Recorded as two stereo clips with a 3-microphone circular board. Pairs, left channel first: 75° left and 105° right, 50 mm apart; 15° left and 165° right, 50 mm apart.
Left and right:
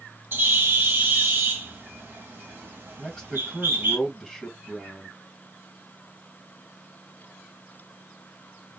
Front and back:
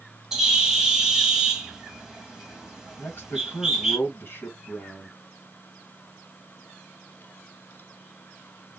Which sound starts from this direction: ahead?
A man speaking, at 3.0 s.